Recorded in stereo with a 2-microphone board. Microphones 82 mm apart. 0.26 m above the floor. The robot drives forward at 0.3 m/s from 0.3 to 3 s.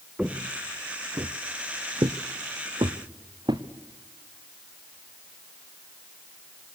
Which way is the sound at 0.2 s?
10° right (ahead or behind).